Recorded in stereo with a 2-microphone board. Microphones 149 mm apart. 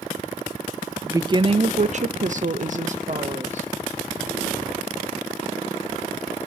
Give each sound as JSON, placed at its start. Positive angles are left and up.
{"t": 1.0, "sound": "a woman speaking", "side_deg": -20, "distance_m": 0.5}